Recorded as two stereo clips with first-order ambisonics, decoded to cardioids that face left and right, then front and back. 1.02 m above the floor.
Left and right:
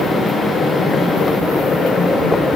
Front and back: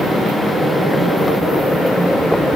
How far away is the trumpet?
No trumpet in this recording.